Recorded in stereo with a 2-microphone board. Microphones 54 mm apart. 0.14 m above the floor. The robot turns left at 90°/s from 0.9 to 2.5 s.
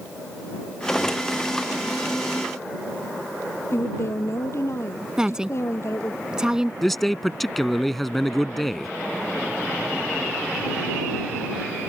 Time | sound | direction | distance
3.7 | a woman speaking | 50° left (ahead or behind) | ?
5.2 | a woman speaking | 15° right (ahead or behind) | ?
6.8 | a man speaking | 5° left (ahead or behind) | ?